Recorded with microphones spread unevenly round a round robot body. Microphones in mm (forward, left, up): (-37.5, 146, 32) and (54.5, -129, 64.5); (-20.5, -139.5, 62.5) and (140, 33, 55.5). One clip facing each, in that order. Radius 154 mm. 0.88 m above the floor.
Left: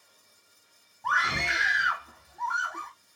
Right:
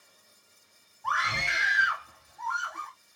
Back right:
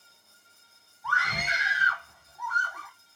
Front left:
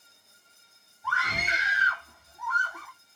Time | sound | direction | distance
1.0 | a scream | 115° left | 1.5 m